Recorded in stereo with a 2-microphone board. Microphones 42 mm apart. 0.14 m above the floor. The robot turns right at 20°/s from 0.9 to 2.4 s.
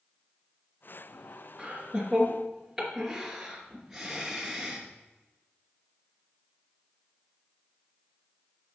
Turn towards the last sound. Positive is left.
turn(degrees=-5)  # may be behind; listen again after turning